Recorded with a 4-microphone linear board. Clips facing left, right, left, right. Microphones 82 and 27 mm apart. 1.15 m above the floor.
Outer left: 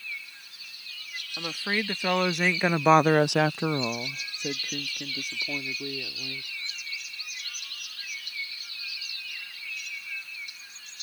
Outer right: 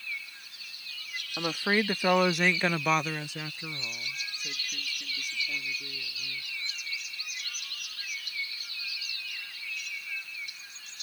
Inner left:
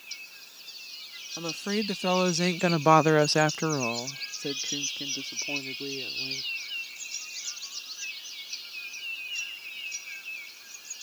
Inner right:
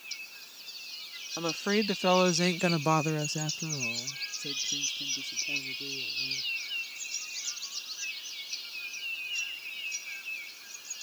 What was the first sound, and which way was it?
A woman speaking, 20° right (ahead or behind).